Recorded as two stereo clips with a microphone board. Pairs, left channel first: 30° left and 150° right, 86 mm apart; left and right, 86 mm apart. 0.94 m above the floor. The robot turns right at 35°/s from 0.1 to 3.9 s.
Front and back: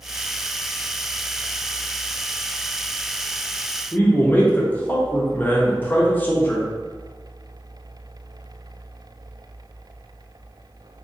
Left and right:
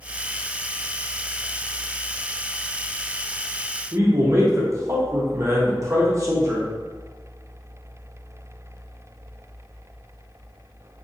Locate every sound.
3.9 s a man speaking: 40° right, 0.8 m